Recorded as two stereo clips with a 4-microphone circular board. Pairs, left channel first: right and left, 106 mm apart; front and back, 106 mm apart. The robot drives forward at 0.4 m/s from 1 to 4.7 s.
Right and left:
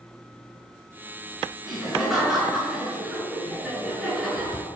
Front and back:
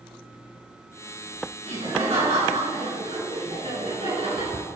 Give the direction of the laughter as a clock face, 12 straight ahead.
6 o'clock.